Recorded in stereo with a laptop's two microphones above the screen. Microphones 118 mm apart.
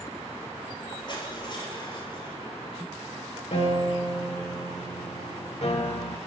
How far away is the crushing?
About 8 m.